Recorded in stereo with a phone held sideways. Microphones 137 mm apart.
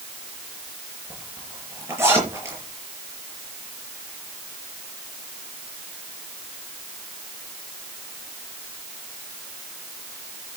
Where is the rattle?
I don't hear a rattle.